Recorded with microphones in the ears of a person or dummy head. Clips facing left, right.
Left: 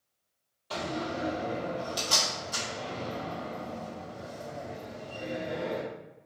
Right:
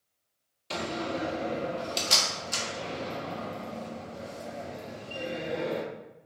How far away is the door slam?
About 1.1 m.